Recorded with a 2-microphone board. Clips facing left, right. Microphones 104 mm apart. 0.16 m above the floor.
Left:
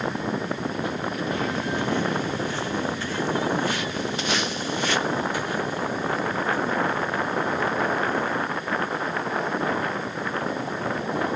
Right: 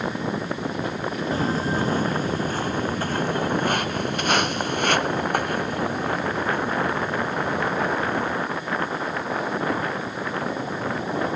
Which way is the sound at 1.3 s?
35° right (ahead or behind).